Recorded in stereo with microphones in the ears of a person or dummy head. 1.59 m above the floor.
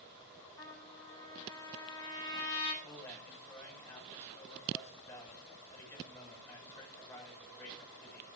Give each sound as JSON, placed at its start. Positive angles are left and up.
{"t": 0.6, "sound": "a trumpet", "side_deg": 20, "distance_m": 5.0}
{"t": 2.8, "sound": "a man speaking", "side_deg": 10, "distance_m": 9.0}